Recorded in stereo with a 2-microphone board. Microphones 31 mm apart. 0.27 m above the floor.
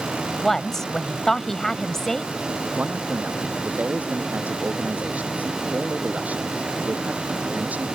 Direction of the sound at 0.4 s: 15° left (ahead or behind).